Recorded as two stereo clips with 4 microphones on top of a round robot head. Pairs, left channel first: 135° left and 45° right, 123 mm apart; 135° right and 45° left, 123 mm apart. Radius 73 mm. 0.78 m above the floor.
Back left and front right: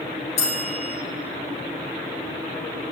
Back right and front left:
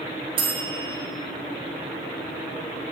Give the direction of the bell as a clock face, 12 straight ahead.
9 o'clock.